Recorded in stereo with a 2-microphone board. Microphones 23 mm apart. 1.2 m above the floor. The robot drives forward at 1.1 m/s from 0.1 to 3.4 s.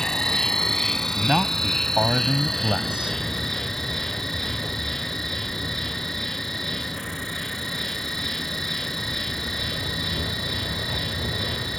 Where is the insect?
20° left (ahead or behind); by 11.8 s 10° left (ahead or behind).